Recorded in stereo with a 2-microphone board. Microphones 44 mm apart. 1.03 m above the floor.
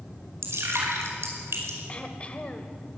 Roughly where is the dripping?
Right.